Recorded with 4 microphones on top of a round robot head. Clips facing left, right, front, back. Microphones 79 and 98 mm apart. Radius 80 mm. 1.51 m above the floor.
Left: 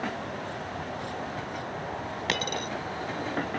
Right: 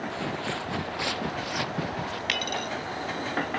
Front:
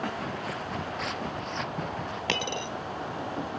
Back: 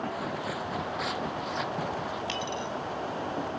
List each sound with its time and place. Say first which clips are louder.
0.1 s footsteps: right 3 dB, back 1 dB; 95° right; by 2.2 s 90° right
2.3 s a dropped coin: left 2 dB, front 1 dB; 30° left